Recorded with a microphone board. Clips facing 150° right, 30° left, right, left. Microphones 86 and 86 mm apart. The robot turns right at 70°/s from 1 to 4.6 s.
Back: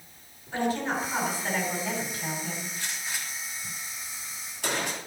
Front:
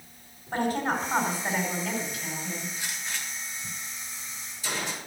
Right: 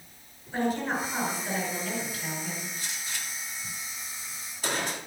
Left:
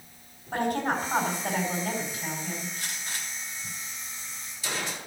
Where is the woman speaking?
70° left, 5 m; by 2.7 s 175° right, 5 m.